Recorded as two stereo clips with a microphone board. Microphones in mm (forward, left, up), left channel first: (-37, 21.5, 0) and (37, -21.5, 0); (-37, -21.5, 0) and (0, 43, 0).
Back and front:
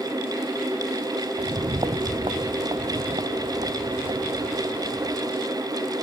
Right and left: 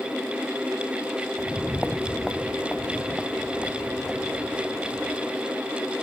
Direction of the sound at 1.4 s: 25° right.